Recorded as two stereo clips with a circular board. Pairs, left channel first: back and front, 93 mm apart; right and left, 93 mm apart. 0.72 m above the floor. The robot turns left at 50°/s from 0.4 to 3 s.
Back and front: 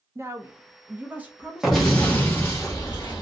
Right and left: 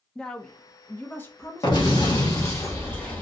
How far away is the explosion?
About 1.2 m.